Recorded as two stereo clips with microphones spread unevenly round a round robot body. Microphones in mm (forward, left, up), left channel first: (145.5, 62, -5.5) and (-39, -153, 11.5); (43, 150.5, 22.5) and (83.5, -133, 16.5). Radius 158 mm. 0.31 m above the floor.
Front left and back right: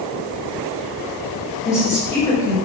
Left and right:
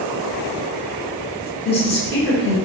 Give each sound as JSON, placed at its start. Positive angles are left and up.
{"t": 1.6, "sound": "a woman speaking", "azimuth_deg": 115, "distance_m": 1.0}